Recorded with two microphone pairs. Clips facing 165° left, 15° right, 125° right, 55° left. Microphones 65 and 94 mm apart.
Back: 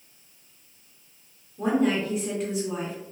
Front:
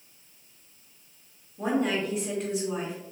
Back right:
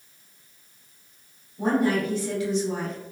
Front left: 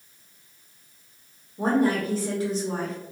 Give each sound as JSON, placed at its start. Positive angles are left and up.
{"t": 1.6, "sound": "a woman speaking", "azimuth_deg": 70, "distance_m": 0.9}